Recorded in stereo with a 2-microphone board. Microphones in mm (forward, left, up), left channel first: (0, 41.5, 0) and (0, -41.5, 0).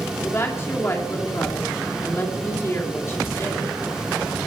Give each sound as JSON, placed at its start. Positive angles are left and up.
{"t": 0.2, "sound": "a woman speaking", "side_deg": 35, "distance_m": 2.5}